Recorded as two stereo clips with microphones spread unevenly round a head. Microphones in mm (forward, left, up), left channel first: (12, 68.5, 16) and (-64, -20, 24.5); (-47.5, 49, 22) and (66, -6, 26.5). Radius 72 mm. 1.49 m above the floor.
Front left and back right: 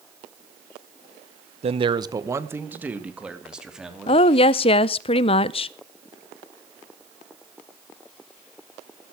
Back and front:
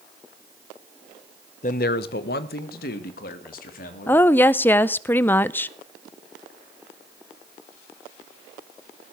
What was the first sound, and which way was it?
A man speaking, 160° right.